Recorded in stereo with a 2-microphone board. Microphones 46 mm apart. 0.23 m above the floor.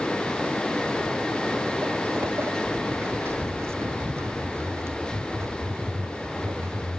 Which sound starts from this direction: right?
Footsteps, at 1.0 s.